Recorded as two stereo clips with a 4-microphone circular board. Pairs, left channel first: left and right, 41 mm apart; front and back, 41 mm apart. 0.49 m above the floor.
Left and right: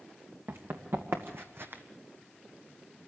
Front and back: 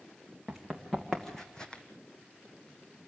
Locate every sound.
0.5 s running footsteps: 90° right, 3 m; by 1.8 s 60° right, 1.2 m